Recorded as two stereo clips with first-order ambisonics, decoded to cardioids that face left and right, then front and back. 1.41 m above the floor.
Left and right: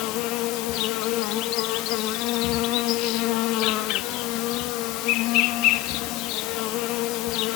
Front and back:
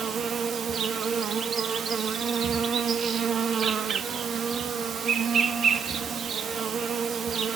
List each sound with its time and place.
0.0 s an insect: 115° left, 1.6 m